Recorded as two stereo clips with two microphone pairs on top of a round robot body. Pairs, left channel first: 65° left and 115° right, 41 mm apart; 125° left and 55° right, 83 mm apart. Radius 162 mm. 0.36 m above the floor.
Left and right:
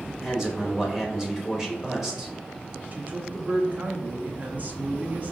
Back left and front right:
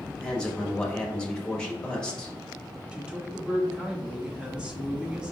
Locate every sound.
0.2 s a man speaking: straight behind, 1.6 m
2.9 s a man speaking: 135° right, 1.0 m